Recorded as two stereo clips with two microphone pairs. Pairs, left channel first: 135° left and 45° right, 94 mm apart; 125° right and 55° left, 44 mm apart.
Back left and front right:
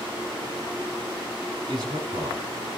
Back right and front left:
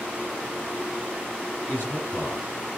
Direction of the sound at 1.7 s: 85° right.